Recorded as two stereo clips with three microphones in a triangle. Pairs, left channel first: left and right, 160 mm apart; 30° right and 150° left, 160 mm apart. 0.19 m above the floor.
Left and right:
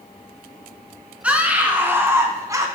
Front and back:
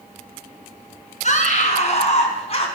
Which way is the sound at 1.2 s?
10° right.